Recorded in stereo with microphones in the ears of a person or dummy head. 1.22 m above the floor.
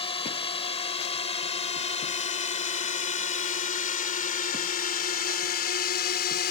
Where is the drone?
30° left (ahead or behind); by 6.5 s 50° left (ahead or behind).